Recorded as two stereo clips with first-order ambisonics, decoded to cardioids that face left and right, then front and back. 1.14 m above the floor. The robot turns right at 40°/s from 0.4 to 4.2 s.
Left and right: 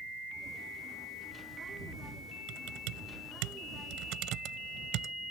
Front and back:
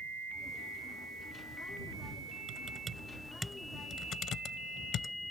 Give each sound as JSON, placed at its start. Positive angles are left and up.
{"t": 2.5, "sound": "typing on a keyboard", "azimuth_deg": -125}